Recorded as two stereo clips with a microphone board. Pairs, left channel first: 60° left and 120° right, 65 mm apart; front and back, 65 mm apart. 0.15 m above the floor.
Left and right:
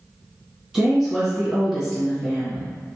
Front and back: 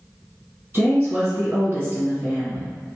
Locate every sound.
0.7 s a woman speaking: 160° left, 2.0 m